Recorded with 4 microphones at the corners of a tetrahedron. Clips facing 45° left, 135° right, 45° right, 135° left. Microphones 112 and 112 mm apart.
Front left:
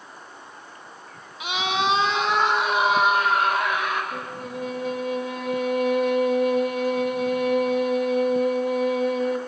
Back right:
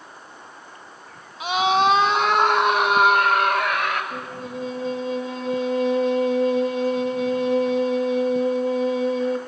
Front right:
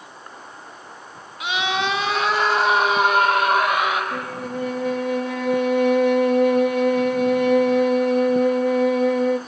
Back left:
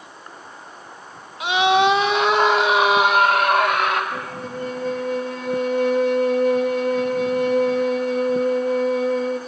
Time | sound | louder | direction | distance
1.4 | a scream | back right 6 dB, back left 7 dB | 170° right | 1.6 m
4.1 | a violin | back right 1 dB, front right 2 dB | 70° right | 2.5 m